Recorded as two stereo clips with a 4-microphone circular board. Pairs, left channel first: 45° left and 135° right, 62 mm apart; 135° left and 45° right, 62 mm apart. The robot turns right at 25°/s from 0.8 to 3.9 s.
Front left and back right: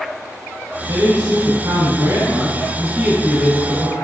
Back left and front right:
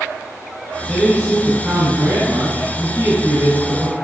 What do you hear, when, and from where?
0.9 s a man speaking: 140° right, 2 m; by 3.9 s 65° right, 2 m